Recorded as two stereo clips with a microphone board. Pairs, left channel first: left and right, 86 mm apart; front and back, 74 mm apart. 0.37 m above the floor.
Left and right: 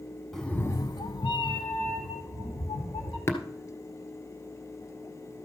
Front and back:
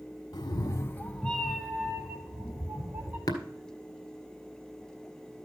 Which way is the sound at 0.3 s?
5° left.